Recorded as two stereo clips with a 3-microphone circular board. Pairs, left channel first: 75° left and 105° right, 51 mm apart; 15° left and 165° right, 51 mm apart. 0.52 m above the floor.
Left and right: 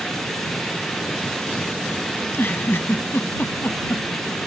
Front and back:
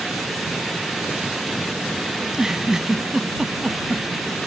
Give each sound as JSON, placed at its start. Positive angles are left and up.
{"t": 2.2, "sound": "a giggle", "azimuth_deg": 115}